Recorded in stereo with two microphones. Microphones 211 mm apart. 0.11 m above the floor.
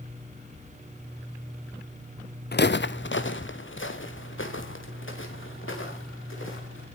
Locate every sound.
2.5 s footsteps: 50° left (ahead or behind), 0.6 m; by 6.8 s 70° left (ahead or behind), 5 m